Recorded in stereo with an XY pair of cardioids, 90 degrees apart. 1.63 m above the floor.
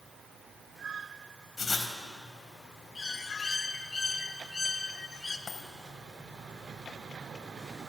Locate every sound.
1.6 s writing: 30° left, 4 m
3.0 s a bird: 30° left, 1.8 m
5.5 s a dropped coin: 55° left, 4 m